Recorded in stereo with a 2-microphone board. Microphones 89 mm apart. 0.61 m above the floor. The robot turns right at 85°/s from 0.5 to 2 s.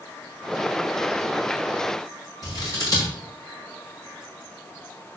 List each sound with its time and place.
2.4 s scissors: 45° left (ahead or behind), 5 m